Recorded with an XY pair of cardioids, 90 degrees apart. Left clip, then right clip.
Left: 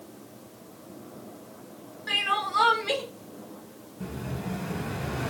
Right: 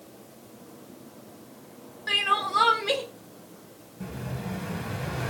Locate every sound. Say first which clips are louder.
2.1 s crying: right 2 dB; 25° right, 0.8 m
4.0 s an explosion: left 1 dB; 5° right, 1.0 m